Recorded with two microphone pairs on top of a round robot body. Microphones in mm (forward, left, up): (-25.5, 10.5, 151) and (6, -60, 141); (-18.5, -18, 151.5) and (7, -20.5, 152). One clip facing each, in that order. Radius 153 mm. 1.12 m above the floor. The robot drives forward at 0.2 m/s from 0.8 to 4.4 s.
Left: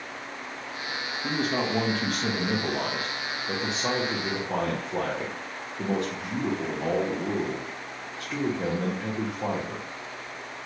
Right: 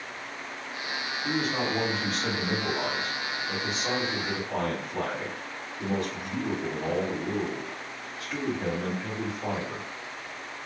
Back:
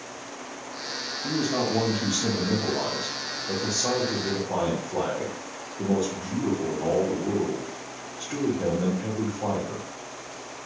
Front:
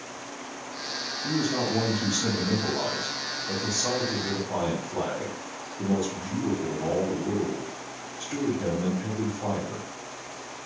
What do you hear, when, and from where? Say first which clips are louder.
1.2 s a man speaking: left 1 dB, back 1 dB; 85° left, 1.2 m; by 9.9 s 115° left, 1.3 m